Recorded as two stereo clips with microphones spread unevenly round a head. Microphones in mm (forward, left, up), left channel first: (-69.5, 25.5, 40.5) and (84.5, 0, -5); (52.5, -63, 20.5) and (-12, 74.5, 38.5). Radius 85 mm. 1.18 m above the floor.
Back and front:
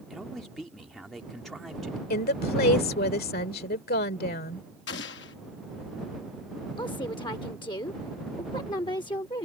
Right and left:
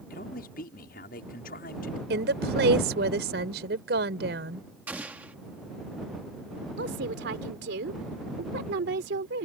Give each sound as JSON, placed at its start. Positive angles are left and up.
{"t": 0.1, "sound": "a man speaking", "azimuth_deg": -100}
{"t": 2.1, "sound": "a woman speaking", "azimuth_deg": 140}
{"t": 4.9, "sound": "an explosion", "azimuth_deg": -165}
{"t": 6.8, "sound": "a woman speaking", "azimuth_deg": 110}